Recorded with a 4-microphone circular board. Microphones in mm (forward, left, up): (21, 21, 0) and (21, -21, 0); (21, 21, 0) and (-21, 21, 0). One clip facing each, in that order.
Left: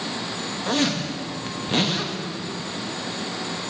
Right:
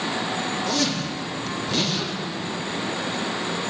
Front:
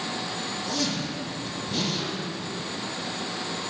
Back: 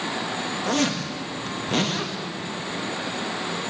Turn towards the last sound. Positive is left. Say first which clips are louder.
# left 1 dB, back 6 dB
turn(degrees=140)